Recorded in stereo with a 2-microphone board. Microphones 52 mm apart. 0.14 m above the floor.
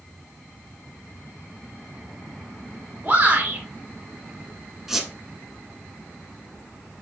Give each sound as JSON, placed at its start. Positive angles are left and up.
{"t": 3.0, "sound": "a shout", "side_deg": -45, "distance_m": 1.9}
{"t": 4.9, "sound": "a squeak", "side_deg": -10, "distance_m": 1.1}